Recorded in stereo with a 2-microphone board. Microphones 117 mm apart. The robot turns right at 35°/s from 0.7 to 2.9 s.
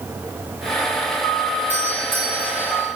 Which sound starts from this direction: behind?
A doorbell, at 1.7 s.